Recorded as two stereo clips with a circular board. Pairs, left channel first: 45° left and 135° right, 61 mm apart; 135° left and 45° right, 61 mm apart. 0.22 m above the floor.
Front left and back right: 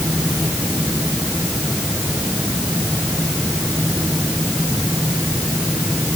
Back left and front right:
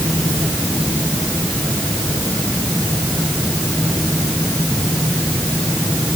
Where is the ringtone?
No ringtone in this recording.